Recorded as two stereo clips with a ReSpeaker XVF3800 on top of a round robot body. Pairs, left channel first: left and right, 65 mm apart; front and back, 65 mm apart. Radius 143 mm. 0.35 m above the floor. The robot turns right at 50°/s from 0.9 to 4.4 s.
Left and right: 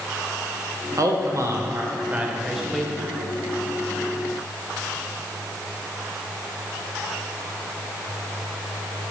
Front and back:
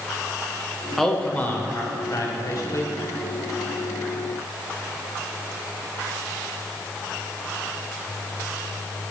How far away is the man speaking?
About 1.8 m.